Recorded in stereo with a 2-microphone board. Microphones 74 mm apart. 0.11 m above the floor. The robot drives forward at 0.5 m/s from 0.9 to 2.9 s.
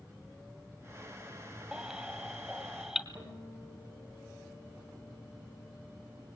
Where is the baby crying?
5° right (ahead or behind), 1.6 m.